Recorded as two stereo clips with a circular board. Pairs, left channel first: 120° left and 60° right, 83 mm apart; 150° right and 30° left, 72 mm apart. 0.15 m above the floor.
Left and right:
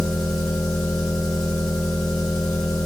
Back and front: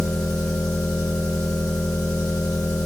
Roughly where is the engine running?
Behind right.